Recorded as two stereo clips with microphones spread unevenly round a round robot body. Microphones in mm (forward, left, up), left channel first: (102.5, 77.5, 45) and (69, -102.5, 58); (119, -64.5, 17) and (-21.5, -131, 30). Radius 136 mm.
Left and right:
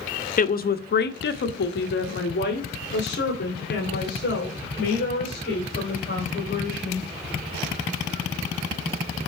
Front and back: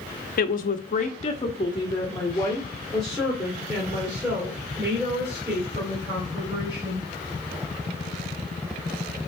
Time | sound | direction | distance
0.4 | a woman speaking | 40° left | 0.8 m